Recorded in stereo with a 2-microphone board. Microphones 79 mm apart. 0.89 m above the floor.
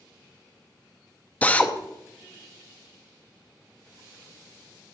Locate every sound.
1.4 s a drill: 20° left (ahead or behind), 0.7 m